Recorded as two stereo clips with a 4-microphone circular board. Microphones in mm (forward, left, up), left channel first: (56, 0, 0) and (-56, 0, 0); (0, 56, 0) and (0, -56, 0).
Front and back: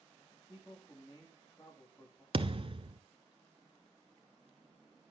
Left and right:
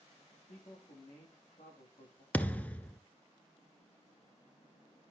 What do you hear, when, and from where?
0.5 s a man speaking: 65° left, 8.5 m
2.3 s a thud: 165° left, 0.9 m